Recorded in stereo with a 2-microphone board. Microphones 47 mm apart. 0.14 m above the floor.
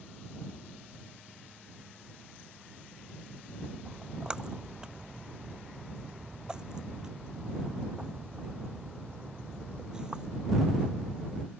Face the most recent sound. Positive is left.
turn(degrees=-15)  # may be behind; listen again after turning